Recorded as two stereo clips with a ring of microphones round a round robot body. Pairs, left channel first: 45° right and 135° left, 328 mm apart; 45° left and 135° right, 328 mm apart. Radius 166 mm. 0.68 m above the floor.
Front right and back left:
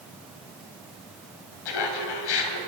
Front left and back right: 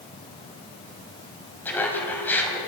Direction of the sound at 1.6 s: 40° right.